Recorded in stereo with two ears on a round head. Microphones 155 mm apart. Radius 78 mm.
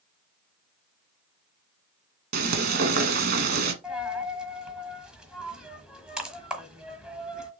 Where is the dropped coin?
5° right (ahead or behind), 1.3 m.